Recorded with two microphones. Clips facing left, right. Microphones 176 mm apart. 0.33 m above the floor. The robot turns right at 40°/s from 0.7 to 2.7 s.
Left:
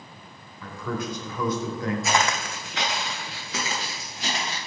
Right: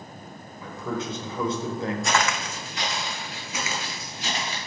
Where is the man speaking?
20° right (ahead or behind), 0.9 m; by 1.9 s 25° right (ahead or behind), 0.9 m.